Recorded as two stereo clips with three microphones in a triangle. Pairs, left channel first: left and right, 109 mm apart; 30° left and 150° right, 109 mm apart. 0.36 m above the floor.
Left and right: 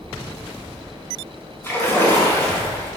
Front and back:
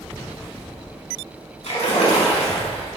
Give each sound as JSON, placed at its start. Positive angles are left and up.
{"t": 1.6, "sound": "a splash", "azimuth_deg": 25, "distance_m": 4.5}